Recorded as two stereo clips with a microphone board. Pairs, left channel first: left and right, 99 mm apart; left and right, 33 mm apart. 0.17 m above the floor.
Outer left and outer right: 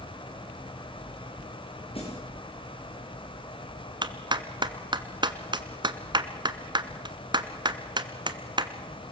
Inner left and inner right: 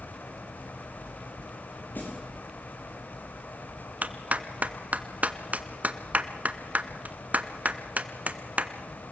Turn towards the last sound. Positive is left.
turn(degrees=-50)  # may be behind; listen again after turning